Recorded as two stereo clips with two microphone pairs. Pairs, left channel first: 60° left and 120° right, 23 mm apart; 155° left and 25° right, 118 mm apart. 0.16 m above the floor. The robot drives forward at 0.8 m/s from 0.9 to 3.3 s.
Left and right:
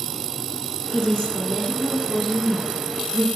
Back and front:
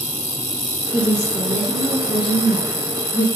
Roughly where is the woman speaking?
Left.